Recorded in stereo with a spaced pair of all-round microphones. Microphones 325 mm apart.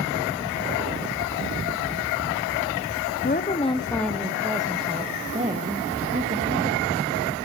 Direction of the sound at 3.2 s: 30° left (ahead or behind).